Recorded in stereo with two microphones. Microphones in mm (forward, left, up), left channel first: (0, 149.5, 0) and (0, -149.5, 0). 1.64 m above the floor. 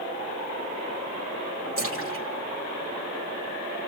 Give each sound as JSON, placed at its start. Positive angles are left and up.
{"t": 1.8, "sound": "a splash", "side_deg": -45, "distance_m": 3.0}